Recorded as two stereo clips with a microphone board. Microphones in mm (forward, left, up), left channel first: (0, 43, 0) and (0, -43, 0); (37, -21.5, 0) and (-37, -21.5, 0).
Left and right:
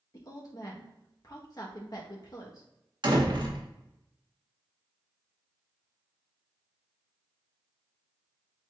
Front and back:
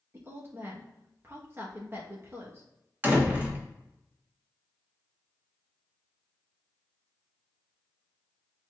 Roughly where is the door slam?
Behind right.